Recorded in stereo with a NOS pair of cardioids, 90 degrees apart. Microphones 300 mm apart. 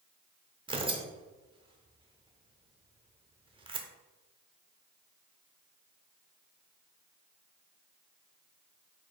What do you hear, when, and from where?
0.7 s tearing paper: 15° right, 0.6 m